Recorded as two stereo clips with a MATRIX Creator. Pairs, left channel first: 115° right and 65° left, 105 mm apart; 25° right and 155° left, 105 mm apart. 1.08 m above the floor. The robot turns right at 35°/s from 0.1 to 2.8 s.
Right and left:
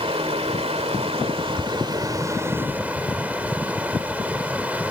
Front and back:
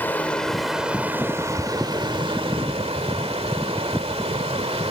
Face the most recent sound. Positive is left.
turn(degrees=145)